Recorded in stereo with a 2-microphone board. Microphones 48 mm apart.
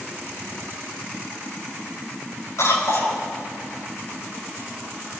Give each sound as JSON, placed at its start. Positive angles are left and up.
{"t": 2.6, "sound": "a cough", "side_deg": 75, "distance_m": 7.0}